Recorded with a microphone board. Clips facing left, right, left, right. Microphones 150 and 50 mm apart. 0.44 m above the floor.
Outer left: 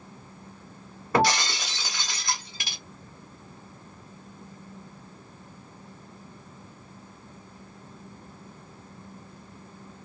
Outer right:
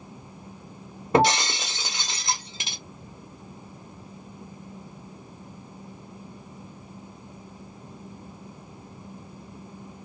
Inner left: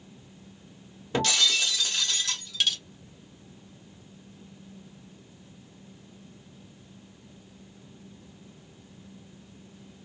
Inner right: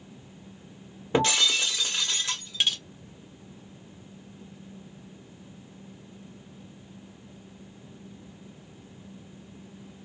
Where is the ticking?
I don't hear ticking.